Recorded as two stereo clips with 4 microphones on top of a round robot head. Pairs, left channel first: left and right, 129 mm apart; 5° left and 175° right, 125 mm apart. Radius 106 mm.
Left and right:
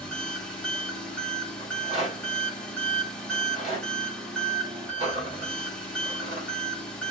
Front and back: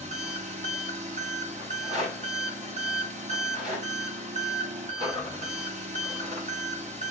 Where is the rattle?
140° right, 5 m.